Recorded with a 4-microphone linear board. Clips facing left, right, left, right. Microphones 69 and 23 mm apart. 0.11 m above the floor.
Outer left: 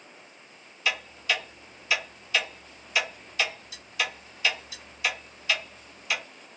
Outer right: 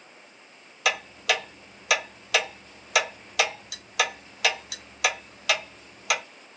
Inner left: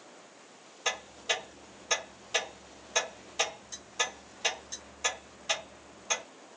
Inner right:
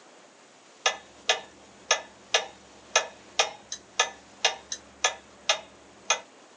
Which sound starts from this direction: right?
Ticking, at 0.8 s.